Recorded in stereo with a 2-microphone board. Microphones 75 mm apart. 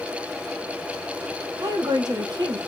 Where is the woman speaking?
60° right (ahead or behind), 1.6 m.